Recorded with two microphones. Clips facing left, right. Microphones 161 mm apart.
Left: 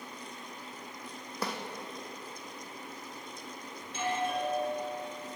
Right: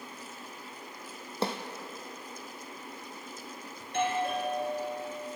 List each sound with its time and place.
1.4 s a snare drum: 25° right (ahead or behind), 1.4 m
3.8 s a doorbell: 60° right (ahead or behind), 4 m